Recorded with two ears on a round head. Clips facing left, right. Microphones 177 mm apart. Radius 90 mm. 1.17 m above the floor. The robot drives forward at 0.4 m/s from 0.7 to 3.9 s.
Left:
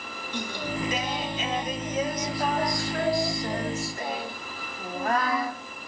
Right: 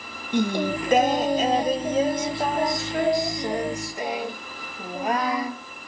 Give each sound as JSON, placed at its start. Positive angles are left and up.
{"t": 0.3, "sound": "singing", "side_deg": -50, "distance_m": 0.6}